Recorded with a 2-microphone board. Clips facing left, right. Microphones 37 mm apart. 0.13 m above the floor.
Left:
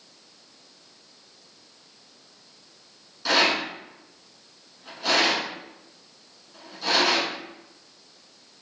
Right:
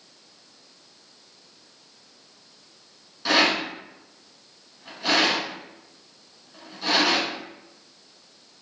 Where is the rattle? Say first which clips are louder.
Right 1 dB; 5° right (ahead or behind), 1.4 m.